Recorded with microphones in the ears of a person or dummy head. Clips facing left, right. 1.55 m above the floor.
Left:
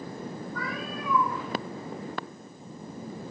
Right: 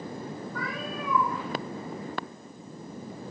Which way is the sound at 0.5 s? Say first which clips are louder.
Right 1 dB; 60° right (ahead or behind).